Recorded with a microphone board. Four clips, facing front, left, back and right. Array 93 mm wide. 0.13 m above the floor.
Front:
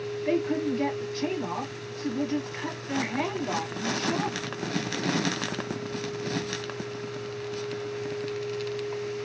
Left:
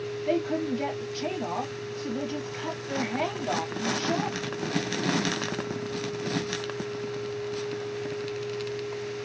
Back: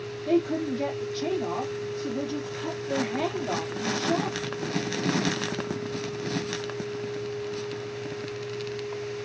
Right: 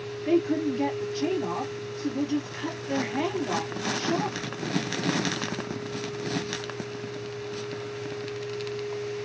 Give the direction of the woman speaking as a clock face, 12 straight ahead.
1 o'clock.